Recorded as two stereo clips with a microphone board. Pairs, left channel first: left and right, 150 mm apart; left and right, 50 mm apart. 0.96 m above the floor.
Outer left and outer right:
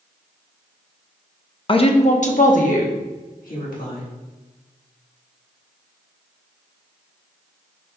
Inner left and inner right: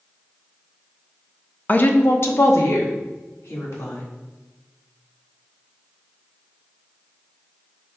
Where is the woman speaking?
35° left (ahead or behind), 0.5 m; by 4.0 s 75° left (ahead or behind), 1.7 m.